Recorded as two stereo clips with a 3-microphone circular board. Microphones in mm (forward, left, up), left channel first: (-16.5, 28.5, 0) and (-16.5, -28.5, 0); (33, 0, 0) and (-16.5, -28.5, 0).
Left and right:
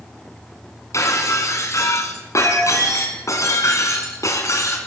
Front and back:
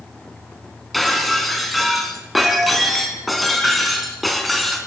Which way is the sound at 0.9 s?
120° left.